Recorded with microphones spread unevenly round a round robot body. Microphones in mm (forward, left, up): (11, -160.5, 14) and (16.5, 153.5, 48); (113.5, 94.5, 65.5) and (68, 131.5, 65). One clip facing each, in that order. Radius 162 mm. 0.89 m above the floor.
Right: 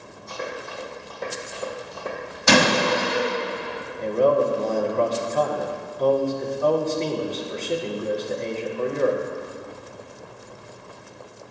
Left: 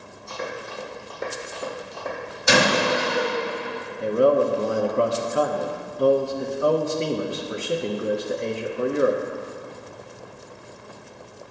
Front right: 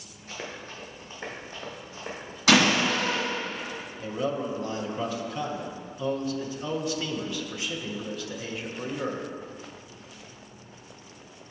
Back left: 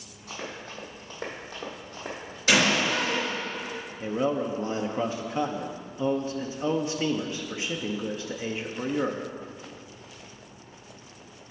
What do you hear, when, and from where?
0.3 s running footsteps: 150° left, 2 m; by 2.4 s 165° right, 1.3 m
2.5 s a door slam: 65° right, 1.3 m
4.0 s a man speaking: 165° left, 0.5 m